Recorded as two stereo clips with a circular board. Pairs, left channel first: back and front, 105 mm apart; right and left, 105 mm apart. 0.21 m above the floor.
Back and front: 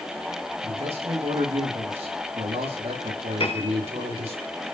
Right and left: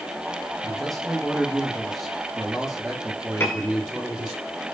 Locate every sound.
0.6 s a man speaking: straight ahead, 8.5 m; by 4.4 s 10° left, 7.5 m
3.4 s a piano: 155° right, 3 m